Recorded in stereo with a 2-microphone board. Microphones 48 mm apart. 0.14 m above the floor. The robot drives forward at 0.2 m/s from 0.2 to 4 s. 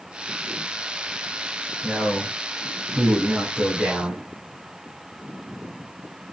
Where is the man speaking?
30° right (ahead or behind), 1.5 m; by 4.2 s 35° right (ahead or behind), 1.5 m.